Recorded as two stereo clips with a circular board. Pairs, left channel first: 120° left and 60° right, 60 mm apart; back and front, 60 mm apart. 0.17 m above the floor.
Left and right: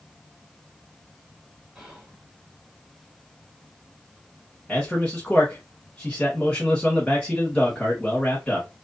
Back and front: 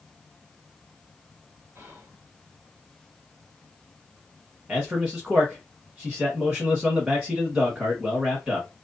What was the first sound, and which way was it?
Whispering, 15° left.